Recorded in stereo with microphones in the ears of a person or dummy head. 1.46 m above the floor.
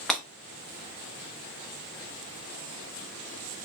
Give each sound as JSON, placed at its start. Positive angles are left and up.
{"t": 0.1, "sound": "breaking glass", "side_deg": 5, "distance_m": 0.8}